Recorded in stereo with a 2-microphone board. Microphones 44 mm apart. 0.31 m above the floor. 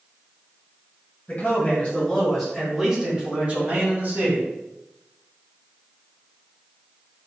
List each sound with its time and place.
1.3 s a man speaking: 35° left (ahead or behind), 1.3 m; by 4.5 s 50° right (ahead or behind), 1.8 m